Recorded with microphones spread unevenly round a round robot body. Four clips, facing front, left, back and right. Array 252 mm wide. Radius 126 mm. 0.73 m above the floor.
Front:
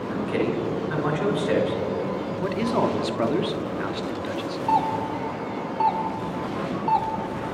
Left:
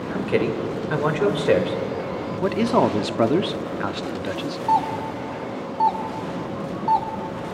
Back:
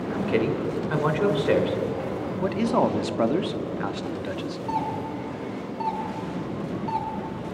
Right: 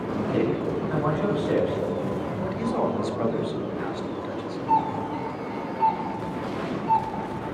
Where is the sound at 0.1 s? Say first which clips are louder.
Left 2 dB, back 1 dB; 115° left, 3.5 m.